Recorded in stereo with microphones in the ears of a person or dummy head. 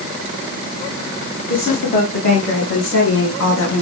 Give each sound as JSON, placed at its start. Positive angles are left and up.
{"t": 1.5, "sound": "a woman speaking", "side_deg": 40, "distance_m": 2.5}